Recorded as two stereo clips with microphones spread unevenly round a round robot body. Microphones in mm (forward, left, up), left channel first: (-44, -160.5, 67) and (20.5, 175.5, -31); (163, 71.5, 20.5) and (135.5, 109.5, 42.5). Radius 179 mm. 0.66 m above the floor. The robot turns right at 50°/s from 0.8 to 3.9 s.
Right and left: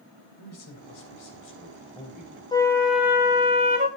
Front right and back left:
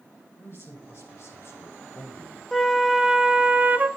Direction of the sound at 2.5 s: 10° right.